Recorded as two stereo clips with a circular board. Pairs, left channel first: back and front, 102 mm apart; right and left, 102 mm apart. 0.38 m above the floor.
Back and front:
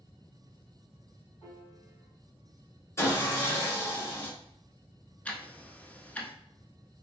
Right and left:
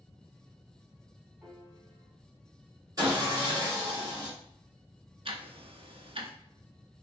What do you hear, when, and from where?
1.4 s a piano: 155° left, 2 m
3.0 s sawing: 130° left, 1.7 m
5.2 s ticking: 105° left, 0.6 m